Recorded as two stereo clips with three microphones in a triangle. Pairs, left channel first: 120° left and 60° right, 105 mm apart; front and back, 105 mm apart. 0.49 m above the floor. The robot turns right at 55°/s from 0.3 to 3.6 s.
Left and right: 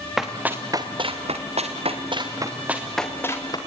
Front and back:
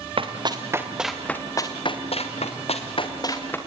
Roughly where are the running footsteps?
Behind right.